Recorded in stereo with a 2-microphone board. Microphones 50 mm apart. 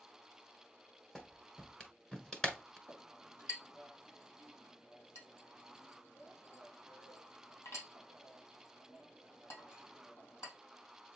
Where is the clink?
70° left (ahead or behind), 3 m.